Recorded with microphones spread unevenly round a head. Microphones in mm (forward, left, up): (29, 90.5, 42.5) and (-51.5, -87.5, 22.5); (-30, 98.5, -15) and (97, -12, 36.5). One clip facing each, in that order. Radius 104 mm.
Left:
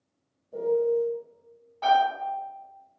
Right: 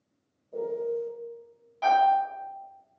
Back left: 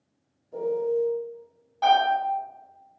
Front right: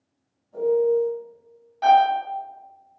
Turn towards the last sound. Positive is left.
turn(degrees=-80)